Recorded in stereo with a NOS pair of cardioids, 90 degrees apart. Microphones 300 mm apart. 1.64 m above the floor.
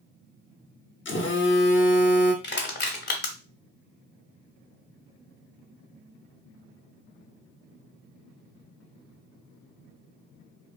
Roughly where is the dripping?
No dripping in this recording.